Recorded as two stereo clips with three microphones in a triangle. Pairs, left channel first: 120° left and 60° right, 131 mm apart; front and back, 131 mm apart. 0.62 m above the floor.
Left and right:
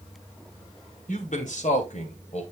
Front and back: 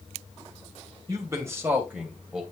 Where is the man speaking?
120° left, 2.5 m; by 2.4 s 95° left, 2.5 m.